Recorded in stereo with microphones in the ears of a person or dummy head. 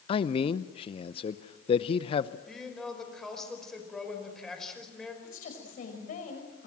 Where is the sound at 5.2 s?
50° left (ahead or behind), 5.5 m.